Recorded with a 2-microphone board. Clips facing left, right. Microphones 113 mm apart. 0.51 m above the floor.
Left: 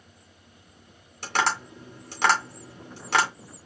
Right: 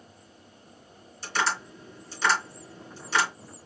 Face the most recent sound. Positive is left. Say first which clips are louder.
# left 3 dB
turn(degrees=70)  # may be behind; listen again after turning